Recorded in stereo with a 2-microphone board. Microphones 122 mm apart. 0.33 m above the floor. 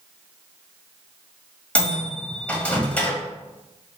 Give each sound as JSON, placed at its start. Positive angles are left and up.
{"t": 1.8, "sound": "a microwave", "side_deg": 10, "distance_m": 1.1}